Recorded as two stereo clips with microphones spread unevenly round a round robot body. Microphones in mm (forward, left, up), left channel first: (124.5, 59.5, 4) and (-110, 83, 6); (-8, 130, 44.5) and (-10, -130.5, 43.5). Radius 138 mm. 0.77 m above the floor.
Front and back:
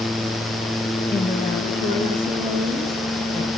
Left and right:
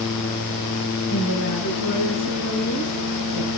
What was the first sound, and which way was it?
A woman speaking, 70° left.